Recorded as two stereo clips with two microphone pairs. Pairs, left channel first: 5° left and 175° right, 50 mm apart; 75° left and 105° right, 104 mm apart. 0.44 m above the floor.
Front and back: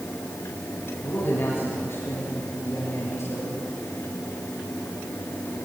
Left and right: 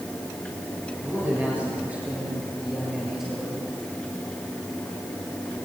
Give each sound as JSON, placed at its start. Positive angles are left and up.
{"t": 1.0, "sound": "a man speaking", "azimuth_deg": -35, "distance_m": 8.5}